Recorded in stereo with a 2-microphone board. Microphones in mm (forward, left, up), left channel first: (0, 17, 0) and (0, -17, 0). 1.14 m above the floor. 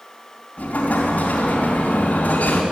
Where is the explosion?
50° left (ahead or behind), 3 m.